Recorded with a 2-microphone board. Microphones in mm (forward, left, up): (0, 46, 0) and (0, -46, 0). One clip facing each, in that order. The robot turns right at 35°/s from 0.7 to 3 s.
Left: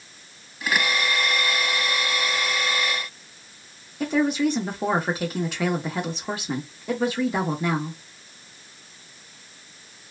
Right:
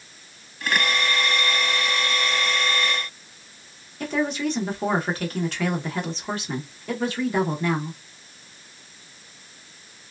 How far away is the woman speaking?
About 0.8 m.